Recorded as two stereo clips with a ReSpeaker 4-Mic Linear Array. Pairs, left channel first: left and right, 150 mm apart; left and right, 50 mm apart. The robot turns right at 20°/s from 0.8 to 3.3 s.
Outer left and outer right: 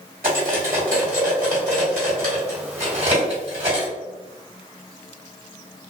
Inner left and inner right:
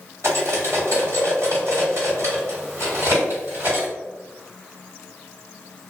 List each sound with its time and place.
0.2 s cutlery clinking: 75° right (ahead or behind), 1.5 m; by 3.9 s 55° right (ahead or behind), 1.5 m